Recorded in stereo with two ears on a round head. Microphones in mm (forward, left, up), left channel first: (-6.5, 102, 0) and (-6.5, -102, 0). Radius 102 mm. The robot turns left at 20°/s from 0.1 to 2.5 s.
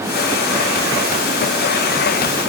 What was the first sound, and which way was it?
Only background noise.